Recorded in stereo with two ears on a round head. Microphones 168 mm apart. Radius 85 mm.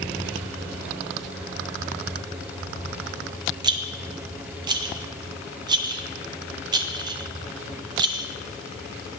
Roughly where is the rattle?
Right.